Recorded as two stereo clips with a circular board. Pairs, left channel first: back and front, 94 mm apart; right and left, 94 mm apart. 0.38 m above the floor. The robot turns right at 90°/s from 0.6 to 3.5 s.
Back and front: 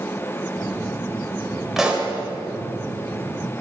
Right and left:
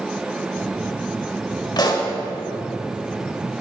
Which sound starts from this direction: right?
A pop, at 1.8 s.